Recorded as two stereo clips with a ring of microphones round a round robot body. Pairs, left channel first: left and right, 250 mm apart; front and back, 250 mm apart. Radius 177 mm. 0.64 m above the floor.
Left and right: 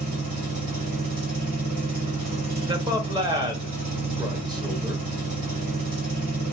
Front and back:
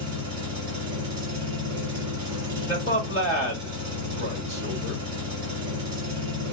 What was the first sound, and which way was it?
An engine running, 120° right.